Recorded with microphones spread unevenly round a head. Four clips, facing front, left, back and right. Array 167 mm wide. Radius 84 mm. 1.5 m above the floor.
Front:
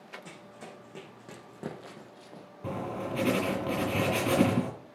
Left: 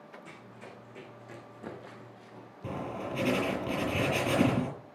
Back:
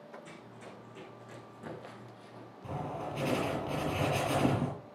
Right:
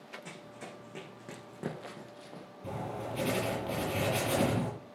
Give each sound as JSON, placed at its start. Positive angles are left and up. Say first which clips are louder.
{"t": 0.2, "sound": "running footsteps", "louder": "right 2 dB, front 2 dB", "azimuth_deg": -45, "distance_m": 6.0}
{"t": 2.6, "sound": "writing", "louder": "left 2 dB, front 4 dB", "azimuth_deg": 20, "distance_m": 8.5}